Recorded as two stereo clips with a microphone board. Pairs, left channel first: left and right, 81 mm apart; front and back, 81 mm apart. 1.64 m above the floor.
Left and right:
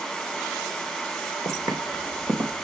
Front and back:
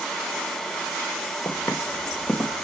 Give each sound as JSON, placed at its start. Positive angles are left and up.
{"t": 1.4, "sound": "footsteps", "azimuth_deg": -75, "distance_m": 3.0}